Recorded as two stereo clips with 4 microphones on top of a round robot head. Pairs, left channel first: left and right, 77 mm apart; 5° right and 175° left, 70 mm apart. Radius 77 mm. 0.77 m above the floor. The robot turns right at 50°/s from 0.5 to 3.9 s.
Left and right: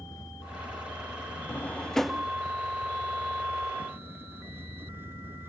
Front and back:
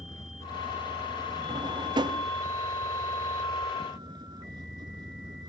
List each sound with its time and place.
0.0 s a vehicle: 40° left; by 5.5 s 150° right
1.5 s a drawer: 150° left; by 2.3 s 170° right